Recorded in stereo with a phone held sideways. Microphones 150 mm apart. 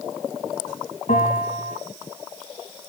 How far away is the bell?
About 3.5 m.